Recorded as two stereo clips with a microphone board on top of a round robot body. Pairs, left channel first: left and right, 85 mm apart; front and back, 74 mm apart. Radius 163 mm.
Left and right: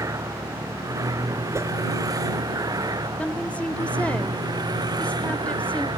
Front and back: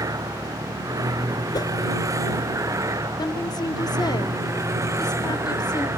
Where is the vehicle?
140° right; by 6.0 s 130° right.